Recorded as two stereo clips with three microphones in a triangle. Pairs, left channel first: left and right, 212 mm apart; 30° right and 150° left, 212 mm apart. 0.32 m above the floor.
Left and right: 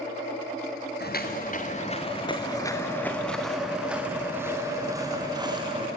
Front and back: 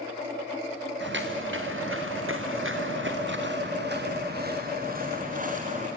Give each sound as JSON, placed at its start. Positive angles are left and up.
{"t": 1.0, "sound": "footsteps", "azimuth_deg": 125, "distance_m": 2.0}